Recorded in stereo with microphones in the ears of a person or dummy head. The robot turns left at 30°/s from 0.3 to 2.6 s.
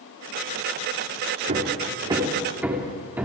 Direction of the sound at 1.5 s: 45° right (ahead or behind).